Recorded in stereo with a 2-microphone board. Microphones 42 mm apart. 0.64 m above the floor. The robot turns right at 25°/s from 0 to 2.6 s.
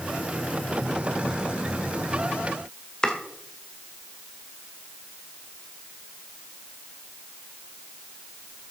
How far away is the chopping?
About 1.5 m.